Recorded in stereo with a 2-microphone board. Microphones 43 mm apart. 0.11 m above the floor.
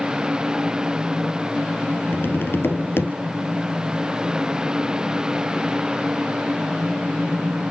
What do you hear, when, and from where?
2.1 s tapping: 55° left (ahead or behind), 2 m